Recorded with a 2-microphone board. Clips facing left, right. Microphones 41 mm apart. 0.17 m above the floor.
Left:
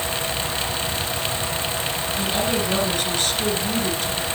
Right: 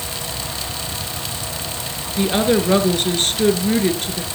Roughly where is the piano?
No piano in this recording.